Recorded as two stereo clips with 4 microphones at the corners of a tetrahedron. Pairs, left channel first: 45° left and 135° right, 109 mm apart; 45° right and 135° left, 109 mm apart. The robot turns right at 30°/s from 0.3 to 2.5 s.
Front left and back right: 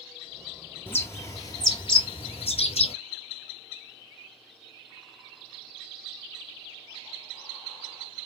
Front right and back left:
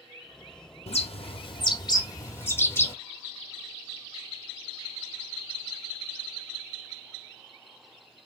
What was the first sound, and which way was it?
A bird, 25° right.